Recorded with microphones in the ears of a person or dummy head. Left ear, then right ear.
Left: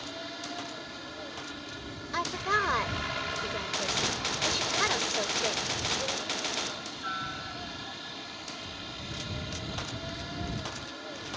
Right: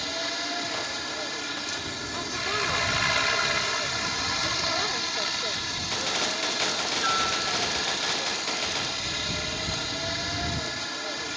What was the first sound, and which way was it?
A helicopter, 70° right (ahead or behind).